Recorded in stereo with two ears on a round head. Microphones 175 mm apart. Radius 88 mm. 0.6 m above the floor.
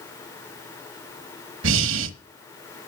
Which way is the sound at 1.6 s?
70° right (ahead or behind).